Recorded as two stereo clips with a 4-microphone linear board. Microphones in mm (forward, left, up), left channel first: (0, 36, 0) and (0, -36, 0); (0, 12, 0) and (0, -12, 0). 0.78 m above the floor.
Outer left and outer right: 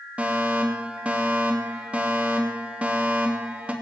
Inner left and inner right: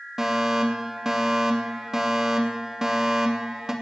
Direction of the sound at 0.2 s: 20° right (ahead or behind).